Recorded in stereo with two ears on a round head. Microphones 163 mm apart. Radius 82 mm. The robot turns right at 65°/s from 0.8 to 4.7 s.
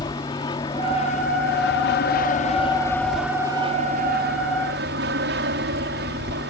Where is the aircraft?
25° left; by 6.5 s 80° right.